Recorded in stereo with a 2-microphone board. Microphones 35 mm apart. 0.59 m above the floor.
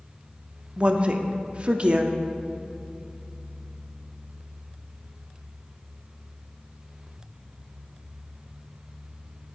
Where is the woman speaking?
35° right (ahead or behind), 0.7 m.